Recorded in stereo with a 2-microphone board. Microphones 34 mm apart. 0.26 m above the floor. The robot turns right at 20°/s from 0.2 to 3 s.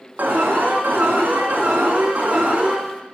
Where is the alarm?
100° right, 2.5 m; by 2.8 s 45° right, 2.5 m.